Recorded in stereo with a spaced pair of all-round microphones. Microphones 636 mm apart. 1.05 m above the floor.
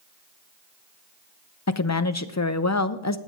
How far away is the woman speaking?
About 0.6 m.